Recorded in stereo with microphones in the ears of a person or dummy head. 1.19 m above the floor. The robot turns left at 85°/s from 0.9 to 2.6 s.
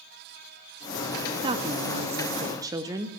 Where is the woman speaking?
45° right, 0.6 m; by 3.1 s 145° right, 0.6 m.